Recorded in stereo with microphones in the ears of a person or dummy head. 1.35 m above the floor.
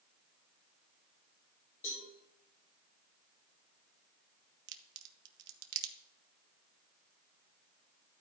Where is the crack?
70° right (ahead or behind), 1.0 m.